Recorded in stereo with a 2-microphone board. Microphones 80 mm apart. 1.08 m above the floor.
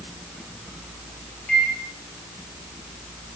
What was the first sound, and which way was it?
A microwave, 15° left (ahead or behind).